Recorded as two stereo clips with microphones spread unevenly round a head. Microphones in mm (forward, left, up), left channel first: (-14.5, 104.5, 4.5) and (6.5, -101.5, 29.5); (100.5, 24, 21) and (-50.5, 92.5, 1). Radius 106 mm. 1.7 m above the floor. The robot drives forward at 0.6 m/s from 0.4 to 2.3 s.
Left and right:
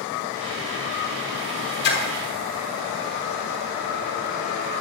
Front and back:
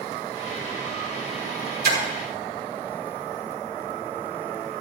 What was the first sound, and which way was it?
A splash, 135° left.